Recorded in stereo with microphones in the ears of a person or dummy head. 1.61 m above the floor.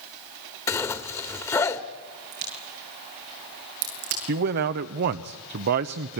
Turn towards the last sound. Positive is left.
turn(degrees=-55)  # may be behind; listen again after turning